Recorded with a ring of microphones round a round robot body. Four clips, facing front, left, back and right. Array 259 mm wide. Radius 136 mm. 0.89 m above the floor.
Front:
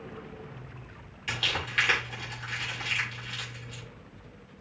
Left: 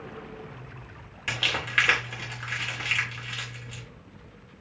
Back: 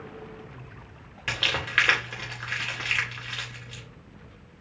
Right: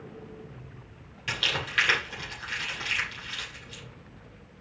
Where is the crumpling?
160° left, 3.5 m.